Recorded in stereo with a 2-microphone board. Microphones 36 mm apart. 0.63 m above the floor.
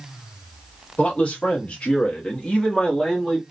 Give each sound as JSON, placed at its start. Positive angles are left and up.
{"t": 1.0, "sound": "a man speaking", "side_deg": 35, "distance_m": 1.2}